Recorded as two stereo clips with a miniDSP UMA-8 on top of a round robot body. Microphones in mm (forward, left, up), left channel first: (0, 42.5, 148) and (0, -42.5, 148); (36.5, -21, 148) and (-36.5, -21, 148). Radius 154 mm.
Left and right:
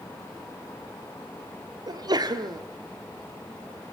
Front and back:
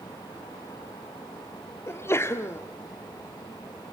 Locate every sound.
1.9 s a sneeze: 55° right, 1.4 m